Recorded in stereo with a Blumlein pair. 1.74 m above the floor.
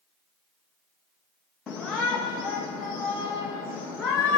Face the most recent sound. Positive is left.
turn(degrees=15)